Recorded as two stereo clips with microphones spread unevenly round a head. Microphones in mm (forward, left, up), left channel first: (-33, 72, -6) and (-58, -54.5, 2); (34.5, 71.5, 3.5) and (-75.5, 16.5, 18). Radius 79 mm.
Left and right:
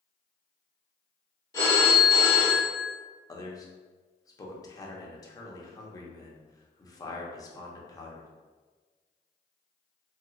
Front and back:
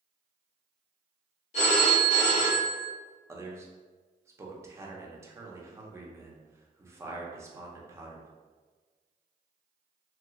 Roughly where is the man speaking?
Behind left.